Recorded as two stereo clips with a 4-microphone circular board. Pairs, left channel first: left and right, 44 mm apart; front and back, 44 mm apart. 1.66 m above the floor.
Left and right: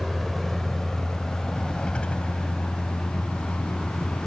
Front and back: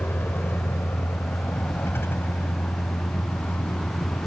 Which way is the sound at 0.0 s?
5° right.